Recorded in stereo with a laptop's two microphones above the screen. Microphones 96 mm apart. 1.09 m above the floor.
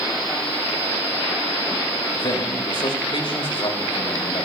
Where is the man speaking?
60° left (ahead or behind), 4.5 m.